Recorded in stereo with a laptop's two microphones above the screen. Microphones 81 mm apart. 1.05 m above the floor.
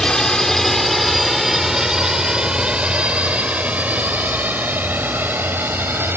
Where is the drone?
10° left (ahead or behind); by 6.2 s 25° right (ahead or behind).